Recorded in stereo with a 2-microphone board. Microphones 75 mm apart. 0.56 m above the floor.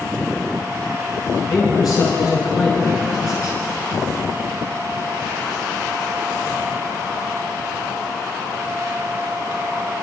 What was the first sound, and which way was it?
A man speaking, 60° left (ahead or behind).